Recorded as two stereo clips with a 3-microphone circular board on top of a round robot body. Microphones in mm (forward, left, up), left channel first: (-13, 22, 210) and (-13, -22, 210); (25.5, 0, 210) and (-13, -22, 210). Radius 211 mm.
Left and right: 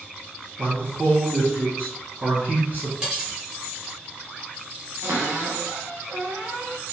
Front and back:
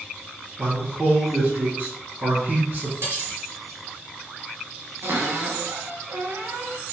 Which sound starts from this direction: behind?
Cutlery clinking, at 3.0 s.